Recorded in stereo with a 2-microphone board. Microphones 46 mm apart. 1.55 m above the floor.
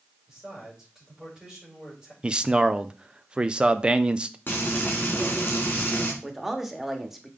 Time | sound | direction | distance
0.3 | a man speaking | 15° right (ahead or behind) | 5.5 m
2.2 | a man speaking | 20° right (ahead or behind) | 0.5 m
4.5 | frying | 45° left (ahead or behind) | 2.5 m
6.2 | a man speaking | 5° right (ahead or behind) | 1.3 m